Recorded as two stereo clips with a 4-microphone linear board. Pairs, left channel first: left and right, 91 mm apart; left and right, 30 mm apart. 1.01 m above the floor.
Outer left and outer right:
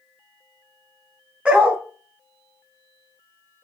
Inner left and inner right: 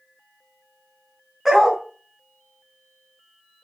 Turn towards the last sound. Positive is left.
turn(degrees=-15)  # may be behind; listen again after turning